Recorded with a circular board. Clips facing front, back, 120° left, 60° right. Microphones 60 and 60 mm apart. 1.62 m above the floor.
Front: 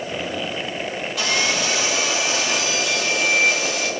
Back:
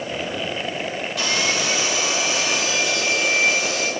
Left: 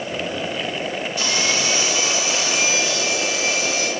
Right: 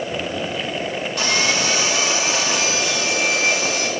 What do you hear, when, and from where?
1.2 s sawing: 85° right, 2.5 m